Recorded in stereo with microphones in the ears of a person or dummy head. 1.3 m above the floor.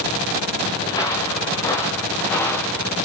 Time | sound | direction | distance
0.8 | footsteps | 20° left (ahead or behind) | 8.5 m